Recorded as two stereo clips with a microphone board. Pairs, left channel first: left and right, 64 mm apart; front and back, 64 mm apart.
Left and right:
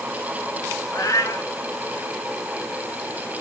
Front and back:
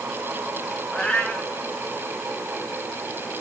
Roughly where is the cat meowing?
Left.